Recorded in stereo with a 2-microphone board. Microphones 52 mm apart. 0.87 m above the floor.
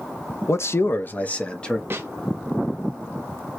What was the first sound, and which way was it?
A man speaking, 55° left (ahead or behind).